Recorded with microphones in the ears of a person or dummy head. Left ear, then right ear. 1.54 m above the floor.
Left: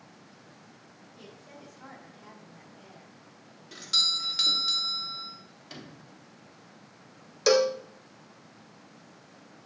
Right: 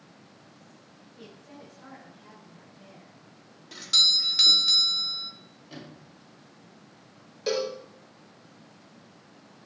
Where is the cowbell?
55° left (ahead or behind), 0.5 m.